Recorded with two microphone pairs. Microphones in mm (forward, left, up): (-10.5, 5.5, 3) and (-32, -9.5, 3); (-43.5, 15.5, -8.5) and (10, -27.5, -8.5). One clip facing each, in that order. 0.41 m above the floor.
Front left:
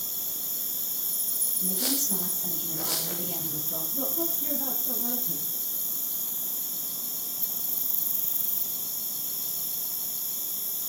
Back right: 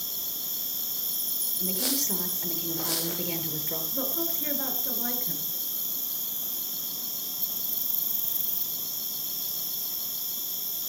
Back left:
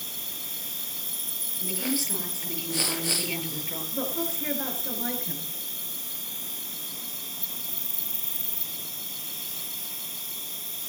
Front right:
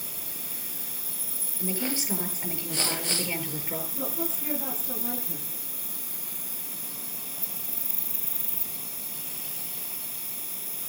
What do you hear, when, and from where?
0.0 s an insect: 155° left, 1.2 m
1.6 s a woman speaking: 110° right, 8 m
3.9 s a woman speaking: 175° left, 7 m